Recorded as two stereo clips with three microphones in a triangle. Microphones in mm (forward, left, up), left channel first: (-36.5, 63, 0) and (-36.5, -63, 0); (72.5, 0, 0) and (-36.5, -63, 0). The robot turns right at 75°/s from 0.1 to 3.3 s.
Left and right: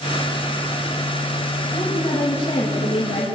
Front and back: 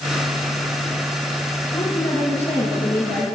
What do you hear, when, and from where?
1.7 s a woman speaking: 25° right, 6 m; by 3.2 s 90° left, 6 m